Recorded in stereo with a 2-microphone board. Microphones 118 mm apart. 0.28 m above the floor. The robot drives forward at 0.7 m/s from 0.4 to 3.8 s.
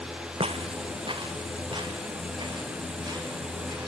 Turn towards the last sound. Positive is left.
turn(degrees=-35)  # may be behind; listen again after turning